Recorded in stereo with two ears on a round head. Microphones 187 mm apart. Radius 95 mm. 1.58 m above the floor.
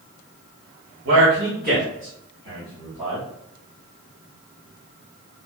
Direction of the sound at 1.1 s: 55° right (ahead or behind).